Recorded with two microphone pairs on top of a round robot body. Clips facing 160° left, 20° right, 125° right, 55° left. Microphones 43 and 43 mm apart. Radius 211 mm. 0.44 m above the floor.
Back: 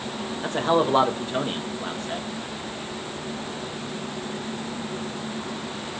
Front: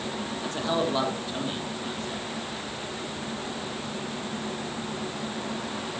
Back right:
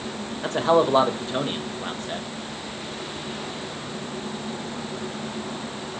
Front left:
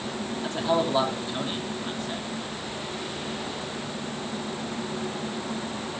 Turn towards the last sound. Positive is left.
turn(degrees=-160)